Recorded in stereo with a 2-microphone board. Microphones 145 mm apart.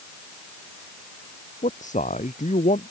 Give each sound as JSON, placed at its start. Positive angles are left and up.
{"t": 1.6, "sound": "a man speaking", "side_deg": 60}